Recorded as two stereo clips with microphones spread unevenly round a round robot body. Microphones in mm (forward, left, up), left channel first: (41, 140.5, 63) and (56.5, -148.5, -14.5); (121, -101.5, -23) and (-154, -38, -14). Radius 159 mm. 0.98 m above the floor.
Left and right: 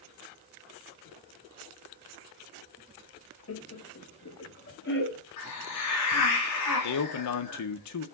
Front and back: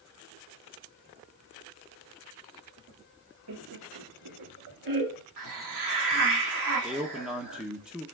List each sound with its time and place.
3.5 s laughter: 145° left, 1.1 m; by 5.2 s 150° left, 2.5 m
5.4 s a hiss: 135° left, 2 m
6.8 s a man speaking: 80° left, 0.8 m